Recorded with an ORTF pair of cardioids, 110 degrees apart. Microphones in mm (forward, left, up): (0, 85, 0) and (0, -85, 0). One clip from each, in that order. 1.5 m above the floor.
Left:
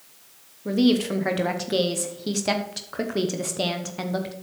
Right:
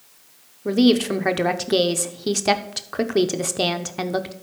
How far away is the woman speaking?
About 0.9 m.